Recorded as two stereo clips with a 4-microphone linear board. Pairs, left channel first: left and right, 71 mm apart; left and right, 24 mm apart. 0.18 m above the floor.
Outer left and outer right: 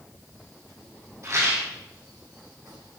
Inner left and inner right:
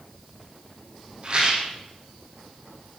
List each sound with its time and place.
1.2 s a rattle: 45° right (ahead or behind), 3.5 m